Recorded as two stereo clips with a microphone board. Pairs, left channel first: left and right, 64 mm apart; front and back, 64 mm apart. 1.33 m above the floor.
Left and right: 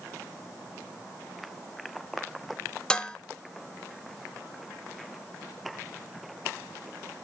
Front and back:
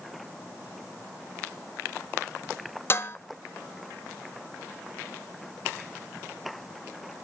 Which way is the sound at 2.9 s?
20° left.